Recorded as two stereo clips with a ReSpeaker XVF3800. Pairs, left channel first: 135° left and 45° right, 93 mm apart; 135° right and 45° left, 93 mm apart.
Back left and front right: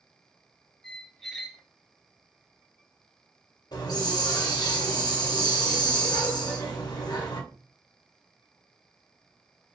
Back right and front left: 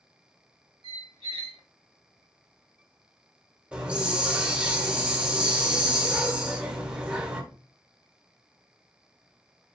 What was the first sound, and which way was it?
A squeak, 45° left.